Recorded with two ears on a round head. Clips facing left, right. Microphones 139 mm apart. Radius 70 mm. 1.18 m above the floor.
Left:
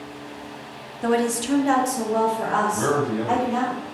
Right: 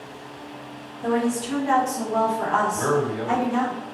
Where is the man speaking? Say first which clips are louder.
Left 1 dB; 30° left (ahead or behind), 1.2 m.